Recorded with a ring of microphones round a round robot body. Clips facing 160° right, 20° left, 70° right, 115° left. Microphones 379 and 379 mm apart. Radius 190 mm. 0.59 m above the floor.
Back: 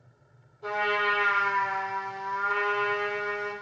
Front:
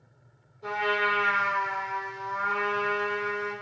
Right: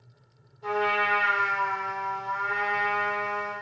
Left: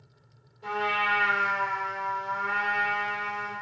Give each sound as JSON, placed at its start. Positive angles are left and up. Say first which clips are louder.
{"t": 0.6, "sound": "a trumpet", "louder": "even, right 5 dB", "azimuth_deg": 115, "distance_m": 2.5}